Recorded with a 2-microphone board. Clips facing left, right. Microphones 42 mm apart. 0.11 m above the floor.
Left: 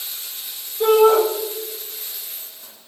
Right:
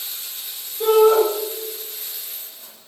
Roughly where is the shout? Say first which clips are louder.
Left 1 dB; centre.